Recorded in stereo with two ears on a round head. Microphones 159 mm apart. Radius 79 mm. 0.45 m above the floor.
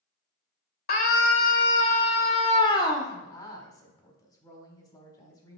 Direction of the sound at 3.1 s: 20° left (ahead or behind).